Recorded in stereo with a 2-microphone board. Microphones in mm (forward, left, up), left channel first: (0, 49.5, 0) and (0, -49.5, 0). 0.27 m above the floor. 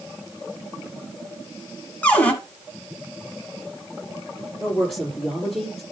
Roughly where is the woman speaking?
Centre.